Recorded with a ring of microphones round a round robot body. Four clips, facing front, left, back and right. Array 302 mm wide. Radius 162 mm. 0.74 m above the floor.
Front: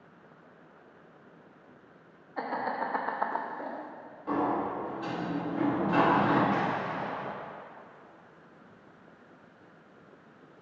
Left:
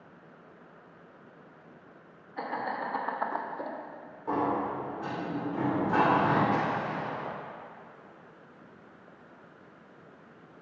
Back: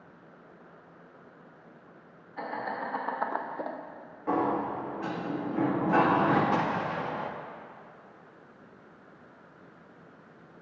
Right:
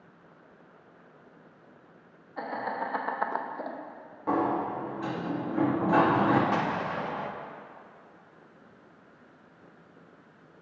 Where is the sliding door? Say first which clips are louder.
Right 2 dB, back 1 dB; 100° right, 1.4 m.